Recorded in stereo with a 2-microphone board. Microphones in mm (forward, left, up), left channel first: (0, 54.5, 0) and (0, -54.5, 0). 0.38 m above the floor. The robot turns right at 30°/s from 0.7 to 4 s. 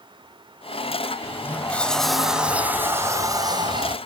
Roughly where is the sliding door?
Behind left.